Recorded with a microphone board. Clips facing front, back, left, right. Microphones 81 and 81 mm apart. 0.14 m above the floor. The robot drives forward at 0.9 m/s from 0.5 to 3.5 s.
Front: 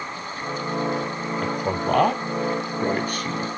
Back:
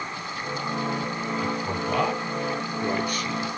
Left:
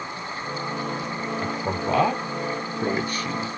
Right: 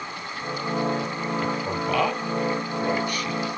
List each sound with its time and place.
1.4 s a man speaking: 25° left, 4 m; by 3.5 s 45° left, 2.5 m